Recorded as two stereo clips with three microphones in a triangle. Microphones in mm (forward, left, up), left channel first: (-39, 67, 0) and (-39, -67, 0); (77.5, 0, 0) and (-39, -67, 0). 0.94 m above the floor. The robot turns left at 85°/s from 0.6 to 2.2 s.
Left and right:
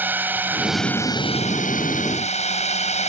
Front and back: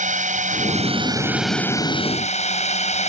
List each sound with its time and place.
0.0 s a drone: 165° right; by 3.1 s 60° left